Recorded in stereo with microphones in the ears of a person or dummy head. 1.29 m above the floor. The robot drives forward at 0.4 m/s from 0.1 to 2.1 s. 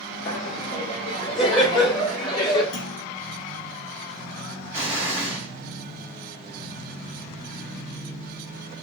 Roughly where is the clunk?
Left.